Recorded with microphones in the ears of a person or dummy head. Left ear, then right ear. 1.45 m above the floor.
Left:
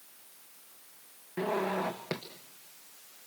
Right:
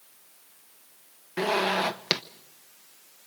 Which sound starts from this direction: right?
A zipper, at 1.4 s.